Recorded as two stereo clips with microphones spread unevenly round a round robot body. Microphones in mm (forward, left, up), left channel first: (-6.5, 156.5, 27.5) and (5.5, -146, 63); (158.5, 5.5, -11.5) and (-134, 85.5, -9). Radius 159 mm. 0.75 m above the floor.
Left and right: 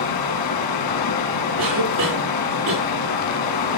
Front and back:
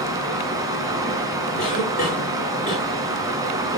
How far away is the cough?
About 3 m.